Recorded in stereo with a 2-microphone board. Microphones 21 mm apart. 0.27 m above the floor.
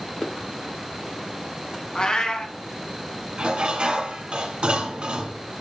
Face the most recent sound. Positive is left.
turn(degrees=-55)  # may be behind; listen again after turning